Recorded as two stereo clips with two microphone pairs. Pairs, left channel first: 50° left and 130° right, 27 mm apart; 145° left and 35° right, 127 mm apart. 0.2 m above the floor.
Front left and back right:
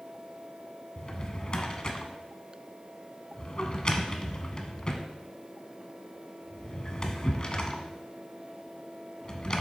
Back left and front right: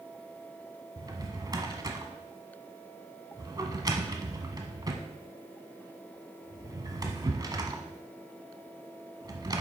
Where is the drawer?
10° left, 1.0 m.